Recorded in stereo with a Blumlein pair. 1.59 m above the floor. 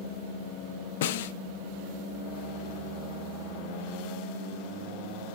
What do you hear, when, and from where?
1.0 s a snare drum: 55° left, 0.8 m